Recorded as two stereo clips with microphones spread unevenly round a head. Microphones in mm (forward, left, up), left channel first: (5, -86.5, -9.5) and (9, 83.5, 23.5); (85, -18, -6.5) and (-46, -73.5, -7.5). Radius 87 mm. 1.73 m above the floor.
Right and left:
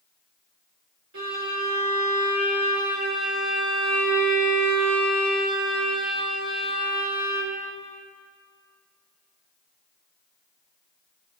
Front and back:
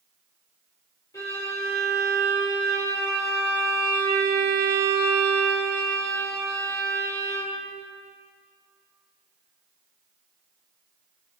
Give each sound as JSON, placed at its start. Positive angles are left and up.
{"t": 1.1, "sound": "a violin", "azimuth_deg": 95, "distance_m": 5.0}